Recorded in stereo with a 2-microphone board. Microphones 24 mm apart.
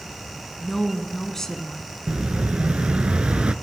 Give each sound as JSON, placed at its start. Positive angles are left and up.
{"t": 0.6, "sound": "a woman speaking", "side_deg": 20, "distance_m": 1.4}
{"t": 2.1, "sound": "an explosion", "side_deg": -55, "distance_m": 0.5}